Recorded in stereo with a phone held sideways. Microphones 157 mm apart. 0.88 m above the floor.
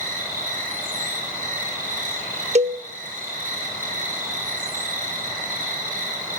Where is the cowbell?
45° right (ahead or behind), 0.9 m.